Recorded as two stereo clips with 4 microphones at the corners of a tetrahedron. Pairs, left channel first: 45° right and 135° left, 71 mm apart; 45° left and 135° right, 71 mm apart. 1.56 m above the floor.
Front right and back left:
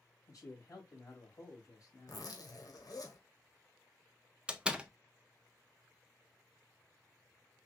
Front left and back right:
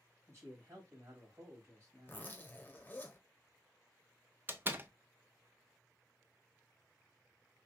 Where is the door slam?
160° right, 0.5 m.